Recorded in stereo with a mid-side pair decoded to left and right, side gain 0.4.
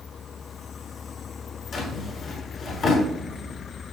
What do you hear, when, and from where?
1.7 s a drawer: 65° left, 7 m